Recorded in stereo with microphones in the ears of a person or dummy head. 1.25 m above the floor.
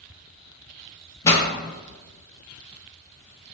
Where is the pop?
20° left (ahead or behind), 0.9 m.